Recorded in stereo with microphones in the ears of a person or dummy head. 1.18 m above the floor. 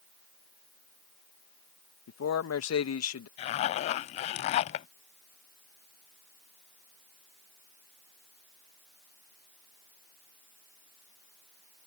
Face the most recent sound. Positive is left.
turn(degrees=35)  # may be behind; listen again after turning